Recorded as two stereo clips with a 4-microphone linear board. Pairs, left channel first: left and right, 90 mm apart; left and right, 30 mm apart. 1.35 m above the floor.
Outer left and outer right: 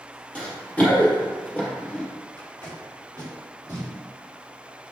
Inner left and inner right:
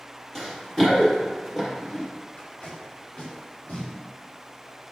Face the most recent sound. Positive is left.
turn(degrees=45)  # may be behind; listen again after turning